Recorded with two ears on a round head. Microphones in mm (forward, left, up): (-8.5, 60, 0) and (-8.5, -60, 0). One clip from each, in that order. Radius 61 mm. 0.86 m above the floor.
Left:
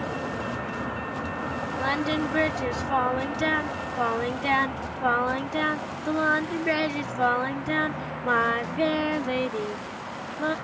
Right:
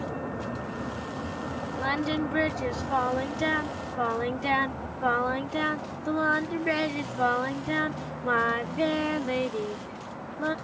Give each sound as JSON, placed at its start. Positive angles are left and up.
{"t": 0.0, "sound": "a vehicle", "side_deg": 60}
{"t": 1.8, "sound": "singing", "side_deg": 10}